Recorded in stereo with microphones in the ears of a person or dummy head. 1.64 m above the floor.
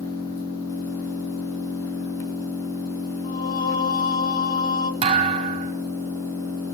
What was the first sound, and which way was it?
An engine running, 15° left (ahead or behind).